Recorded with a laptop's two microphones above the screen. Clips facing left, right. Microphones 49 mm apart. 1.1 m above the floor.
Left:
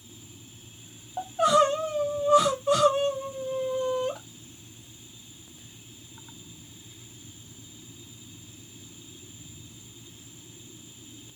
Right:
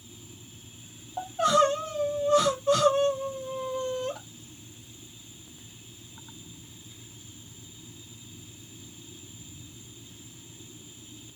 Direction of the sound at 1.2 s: 10° left (ahead or behind).